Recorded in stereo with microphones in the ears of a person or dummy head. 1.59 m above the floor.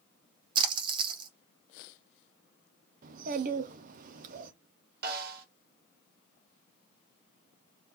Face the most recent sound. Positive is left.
turn(degrees=-60)  # may be behind; listen again after turning